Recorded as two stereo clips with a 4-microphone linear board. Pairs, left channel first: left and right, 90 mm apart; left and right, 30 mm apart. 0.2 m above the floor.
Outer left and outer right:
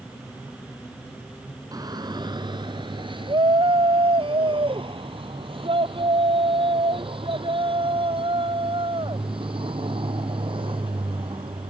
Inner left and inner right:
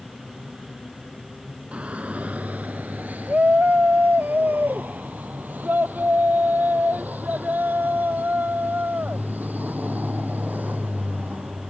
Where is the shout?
45° right (ahead or behind); by 11.7 s 70° right (ahead or behind).